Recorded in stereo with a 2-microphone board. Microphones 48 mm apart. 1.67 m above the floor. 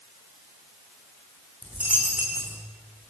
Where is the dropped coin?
30° right (ahead or behind), 5.5 m.